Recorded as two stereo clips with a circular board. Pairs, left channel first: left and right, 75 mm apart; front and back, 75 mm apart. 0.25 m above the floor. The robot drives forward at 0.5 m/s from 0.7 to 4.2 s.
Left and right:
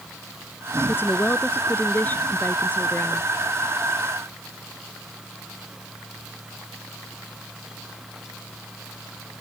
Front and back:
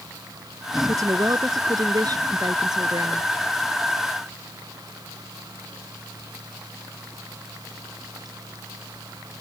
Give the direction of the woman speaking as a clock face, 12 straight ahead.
7 o'clock.